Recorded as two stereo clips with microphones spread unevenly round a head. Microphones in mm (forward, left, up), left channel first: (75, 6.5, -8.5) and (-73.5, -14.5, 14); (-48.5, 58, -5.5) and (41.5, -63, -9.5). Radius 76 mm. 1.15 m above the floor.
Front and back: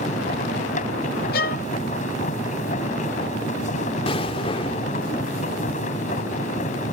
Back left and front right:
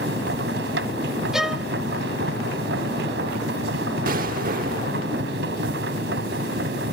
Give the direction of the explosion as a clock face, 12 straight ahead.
2 o'clock.